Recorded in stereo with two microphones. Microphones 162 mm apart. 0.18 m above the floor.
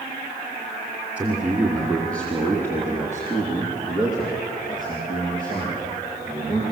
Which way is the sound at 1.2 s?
10° right (ahead or behind).